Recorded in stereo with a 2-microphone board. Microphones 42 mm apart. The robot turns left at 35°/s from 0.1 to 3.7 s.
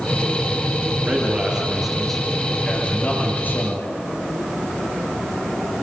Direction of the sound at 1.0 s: 145° right.